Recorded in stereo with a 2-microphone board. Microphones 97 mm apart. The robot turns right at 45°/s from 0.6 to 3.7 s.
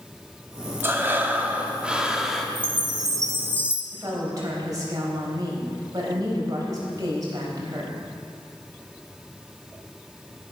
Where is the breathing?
20° right (ahead or behind), 1.1 m; by 2.5 s centre (ahead or behind), 1.1 m.